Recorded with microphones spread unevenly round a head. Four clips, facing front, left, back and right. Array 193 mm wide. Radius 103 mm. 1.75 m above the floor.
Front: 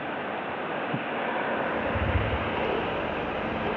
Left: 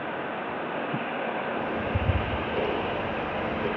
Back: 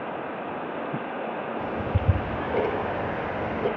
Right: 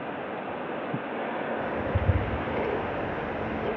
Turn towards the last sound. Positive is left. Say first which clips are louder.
# even, front 1 dB
turn(degrees=175)